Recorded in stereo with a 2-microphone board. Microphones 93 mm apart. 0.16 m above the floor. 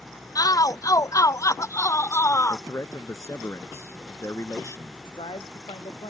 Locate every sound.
0.3 s a shout: 40° left (ahead or behind); by 2.6 s 30° left (ahead or behind)
2.5 s a man speaking: 30° left (ahead or behind)
5.0 s a man speaking: 65° left (ahead or behind)